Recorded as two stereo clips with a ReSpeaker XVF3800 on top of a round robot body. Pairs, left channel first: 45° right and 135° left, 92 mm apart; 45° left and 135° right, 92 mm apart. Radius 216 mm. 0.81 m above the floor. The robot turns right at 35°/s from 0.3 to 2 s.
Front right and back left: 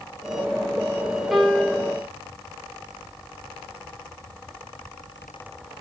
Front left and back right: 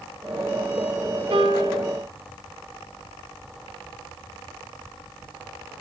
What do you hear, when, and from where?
1.3 s a piano: 135° right, 6 m; by 1.9 s 115° right, 6 m